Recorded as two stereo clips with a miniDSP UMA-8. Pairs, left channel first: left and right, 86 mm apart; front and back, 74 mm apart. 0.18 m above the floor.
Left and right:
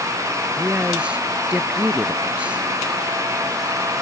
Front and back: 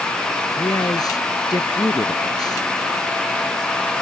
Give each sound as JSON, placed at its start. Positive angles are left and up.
{"t": 0.6, "sound": "a man speaking", "azimuth_deg": -15}